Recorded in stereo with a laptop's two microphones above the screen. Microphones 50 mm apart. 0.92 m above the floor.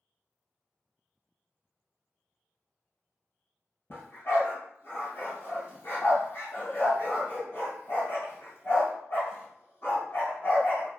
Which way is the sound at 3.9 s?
45° left (ahead or behind).